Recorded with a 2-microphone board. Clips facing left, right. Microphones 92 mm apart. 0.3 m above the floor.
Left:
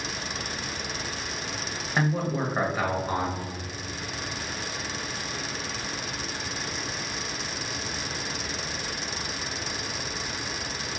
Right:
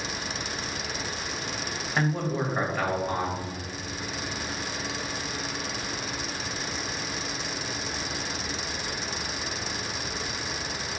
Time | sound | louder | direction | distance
2.0 | a man speaking | left 1 dB | 10° left (ahead or behind) | 1.0 m